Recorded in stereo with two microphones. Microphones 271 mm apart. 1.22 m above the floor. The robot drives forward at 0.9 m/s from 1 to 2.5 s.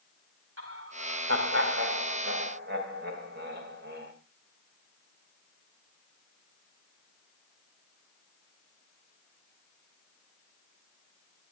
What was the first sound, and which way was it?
Laughter, 50° right (ahead or behind).